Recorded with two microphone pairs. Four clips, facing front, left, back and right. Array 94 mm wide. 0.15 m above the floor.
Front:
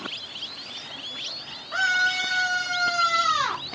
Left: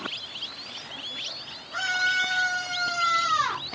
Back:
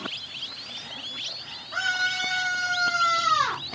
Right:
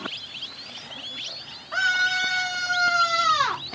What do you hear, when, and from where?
1.7 s a scream: 60° right, 5.5 m; by 3.6 s 70° right, 4.5 m